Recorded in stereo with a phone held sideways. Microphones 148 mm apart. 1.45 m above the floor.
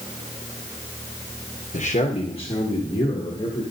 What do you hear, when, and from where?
1.7 s a man speaking: 60° left (ahead or behind), 0.9 m; by 3.6 s 30° left (ahead or behind), 3 m